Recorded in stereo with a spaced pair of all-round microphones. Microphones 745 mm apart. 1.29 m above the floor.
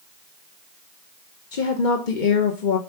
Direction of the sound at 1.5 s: 85° left.